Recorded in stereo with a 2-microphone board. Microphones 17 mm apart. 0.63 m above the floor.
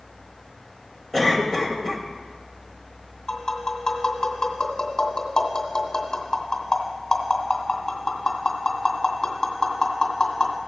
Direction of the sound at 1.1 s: 10° right (ahead or behind).